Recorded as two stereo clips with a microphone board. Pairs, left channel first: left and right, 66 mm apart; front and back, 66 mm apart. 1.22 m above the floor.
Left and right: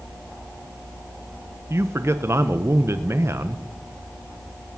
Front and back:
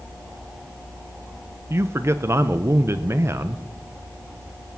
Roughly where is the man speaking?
Behind right.